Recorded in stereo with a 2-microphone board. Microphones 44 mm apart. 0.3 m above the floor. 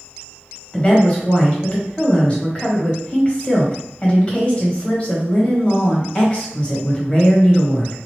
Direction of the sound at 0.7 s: 30° left (ahead or behind).